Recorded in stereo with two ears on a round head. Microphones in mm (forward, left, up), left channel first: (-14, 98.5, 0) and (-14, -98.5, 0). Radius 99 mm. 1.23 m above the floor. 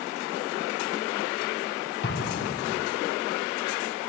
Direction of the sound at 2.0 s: 55° left (ahead or behind).